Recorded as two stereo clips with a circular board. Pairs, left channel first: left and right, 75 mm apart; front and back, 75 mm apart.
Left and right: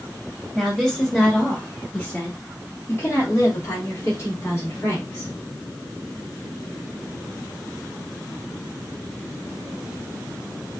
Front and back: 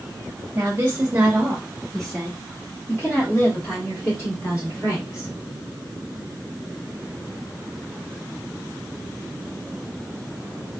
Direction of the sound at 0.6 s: 170° right.